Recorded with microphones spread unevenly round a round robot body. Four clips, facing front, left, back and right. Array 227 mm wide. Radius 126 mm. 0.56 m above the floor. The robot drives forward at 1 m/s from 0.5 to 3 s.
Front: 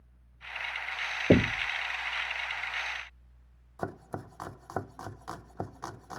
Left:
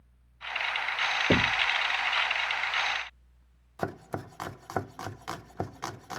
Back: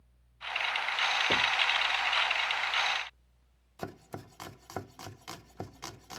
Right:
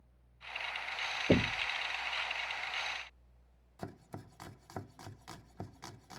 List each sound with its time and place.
1.3 s knocking: 15° left
3.8 s chopping: 75° left